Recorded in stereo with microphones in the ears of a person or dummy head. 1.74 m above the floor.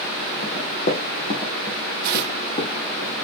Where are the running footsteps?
45° left (ahead or behind), 2.5 m; by 3.0 s 35° left (ahead or behind), 4.5 m.